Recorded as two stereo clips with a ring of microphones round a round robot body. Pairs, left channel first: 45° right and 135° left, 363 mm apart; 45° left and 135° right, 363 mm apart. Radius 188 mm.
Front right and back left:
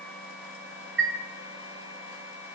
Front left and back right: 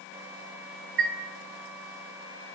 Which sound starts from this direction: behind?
A chime, at 1.0 s.